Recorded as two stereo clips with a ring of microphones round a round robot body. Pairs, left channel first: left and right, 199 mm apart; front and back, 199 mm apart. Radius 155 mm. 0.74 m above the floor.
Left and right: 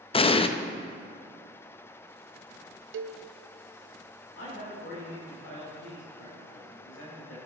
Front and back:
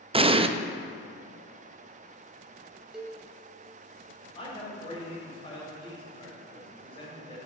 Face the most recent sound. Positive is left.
turn(degrees=60)